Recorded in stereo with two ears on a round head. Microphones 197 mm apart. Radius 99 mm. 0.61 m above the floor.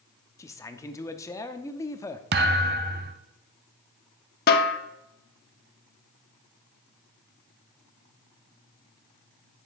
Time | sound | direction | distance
0.4 | a man speaking | 15° left (ahead or behind) | 0.8 m
2.3 | a thud | 45° right (ahead or behind) | 0.8 m
4.5 | a snare drum | 45° left (ahead or behind) | 1.0 m